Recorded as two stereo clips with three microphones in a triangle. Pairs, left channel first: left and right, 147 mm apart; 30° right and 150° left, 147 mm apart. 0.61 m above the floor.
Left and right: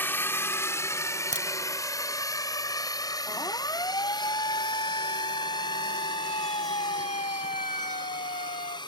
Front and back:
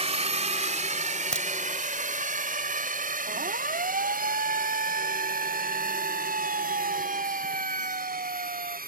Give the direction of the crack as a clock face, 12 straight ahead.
4 o'clock.